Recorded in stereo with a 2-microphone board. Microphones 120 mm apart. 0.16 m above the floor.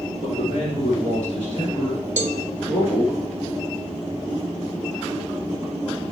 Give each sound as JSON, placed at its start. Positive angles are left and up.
{"t": 0.2, "sound": "a man speaking", "side_deg": 45, "distance_m": 3.0}
{"t": 2.2, "sound": "a cowbell", "side_deg": -60, "distance_m": 0.8}